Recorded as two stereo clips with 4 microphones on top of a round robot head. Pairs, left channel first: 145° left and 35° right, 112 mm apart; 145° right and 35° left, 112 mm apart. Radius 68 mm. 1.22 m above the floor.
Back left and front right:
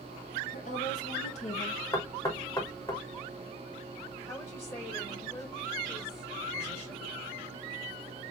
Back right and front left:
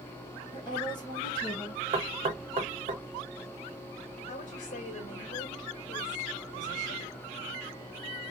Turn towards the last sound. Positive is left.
turn(degrees=-145)